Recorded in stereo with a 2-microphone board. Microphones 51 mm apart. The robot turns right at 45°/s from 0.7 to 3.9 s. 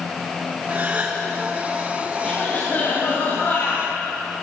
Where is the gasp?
45° right (ahead or behind), 4.5 m; by 1.2 s 25° right (ahead or behind), 4.5 m.